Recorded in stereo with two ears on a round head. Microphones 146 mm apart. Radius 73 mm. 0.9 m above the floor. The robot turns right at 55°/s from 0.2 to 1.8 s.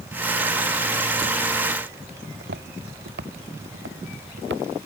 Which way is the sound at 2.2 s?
70° right (ahead or behind).